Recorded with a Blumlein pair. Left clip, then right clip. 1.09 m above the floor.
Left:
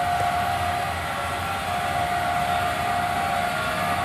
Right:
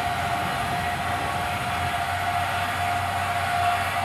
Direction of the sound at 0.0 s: 65° left.